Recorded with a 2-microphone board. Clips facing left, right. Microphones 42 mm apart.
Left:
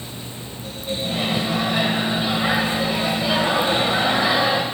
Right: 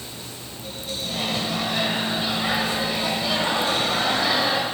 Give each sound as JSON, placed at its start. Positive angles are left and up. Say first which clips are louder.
{"t": 1.0, "sound": "a microwave", "louder": "left 3 dB", "side_deg": 15, "distance_m": 1.0}